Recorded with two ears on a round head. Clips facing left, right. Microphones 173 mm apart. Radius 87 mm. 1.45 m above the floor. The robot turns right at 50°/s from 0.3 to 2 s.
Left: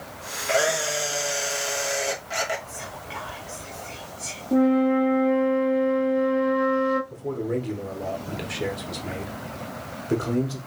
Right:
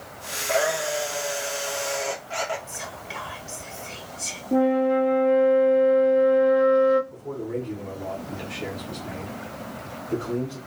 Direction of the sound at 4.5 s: Centre (ahead or behind).